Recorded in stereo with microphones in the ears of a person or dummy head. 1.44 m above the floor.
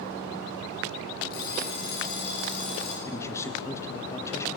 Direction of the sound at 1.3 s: 55° left (ahead or behind).